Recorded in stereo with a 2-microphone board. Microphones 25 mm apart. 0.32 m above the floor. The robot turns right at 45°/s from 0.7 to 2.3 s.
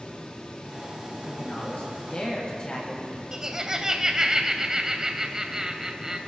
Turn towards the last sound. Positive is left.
turn(degrees=-20)  # may be behind; listen again after turning